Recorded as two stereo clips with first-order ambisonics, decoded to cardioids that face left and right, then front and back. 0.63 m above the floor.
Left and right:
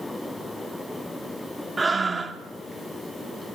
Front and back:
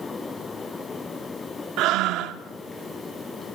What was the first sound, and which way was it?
Breathing, 165° right.